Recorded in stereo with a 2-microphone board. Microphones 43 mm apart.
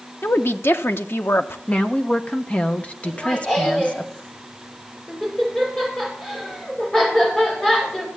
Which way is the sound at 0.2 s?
60° left (ahead or behind).